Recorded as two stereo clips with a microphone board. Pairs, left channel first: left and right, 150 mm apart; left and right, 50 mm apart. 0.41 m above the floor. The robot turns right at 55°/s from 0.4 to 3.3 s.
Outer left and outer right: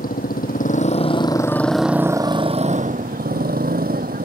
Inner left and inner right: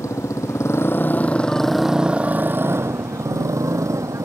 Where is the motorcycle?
105° left; by 4.2 s 95° right.